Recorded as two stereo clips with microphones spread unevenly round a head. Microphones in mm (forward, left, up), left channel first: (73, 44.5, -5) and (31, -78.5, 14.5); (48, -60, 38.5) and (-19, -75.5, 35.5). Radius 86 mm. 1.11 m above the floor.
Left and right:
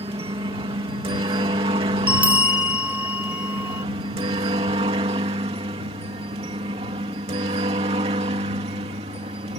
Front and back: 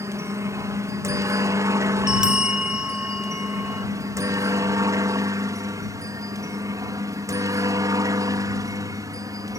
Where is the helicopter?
160° right.